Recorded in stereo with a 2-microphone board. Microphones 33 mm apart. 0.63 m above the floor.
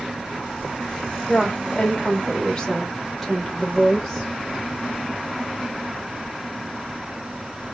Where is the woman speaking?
30° left (ahead or behind), 2.5 m; by 4.3 s 5° left (ahead or behind), 3.5 m.